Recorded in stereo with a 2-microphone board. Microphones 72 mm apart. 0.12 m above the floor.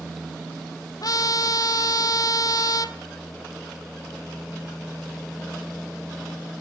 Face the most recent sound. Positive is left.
turn(degrees=55)  # may be behind; listen again after turning